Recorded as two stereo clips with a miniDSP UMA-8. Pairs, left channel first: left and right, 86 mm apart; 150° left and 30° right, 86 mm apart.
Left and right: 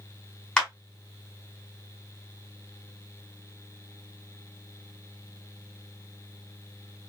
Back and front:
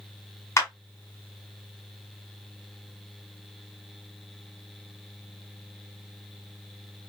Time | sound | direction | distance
0.6 | a clap | 165° left | 1.4 m